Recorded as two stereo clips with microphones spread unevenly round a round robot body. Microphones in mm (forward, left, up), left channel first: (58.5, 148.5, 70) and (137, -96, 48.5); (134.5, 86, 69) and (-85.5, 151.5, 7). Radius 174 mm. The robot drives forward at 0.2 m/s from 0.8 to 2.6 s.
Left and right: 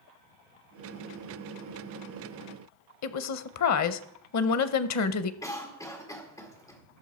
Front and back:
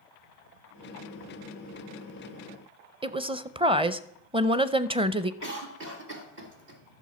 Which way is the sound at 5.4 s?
170° right.